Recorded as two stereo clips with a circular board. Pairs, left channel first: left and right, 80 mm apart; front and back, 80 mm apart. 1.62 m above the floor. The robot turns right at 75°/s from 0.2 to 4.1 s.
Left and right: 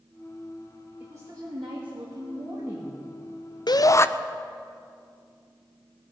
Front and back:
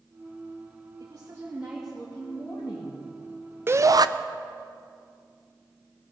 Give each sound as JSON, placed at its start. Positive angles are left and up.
{"t": 1.0, "sound": "a woman speaking", "azimuth_deg": -155, "distance_m": 2.0}
{"t": 3.7, "sound": "a shout", "azimuth_deg": 120, "distance_m": 0.6}